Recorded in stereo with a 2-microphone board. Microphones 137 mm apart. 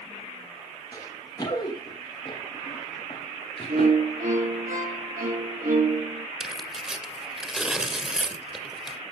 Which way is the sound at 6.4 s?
5° right (ahead or behind).